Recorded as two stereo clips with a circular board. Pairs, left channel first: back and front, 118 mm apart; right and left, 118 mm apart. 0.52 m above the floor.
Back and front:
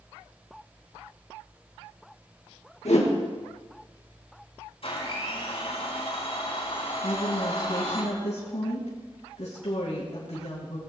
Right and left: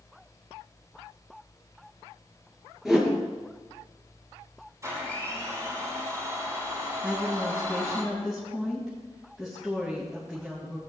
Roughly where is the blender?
Behind left.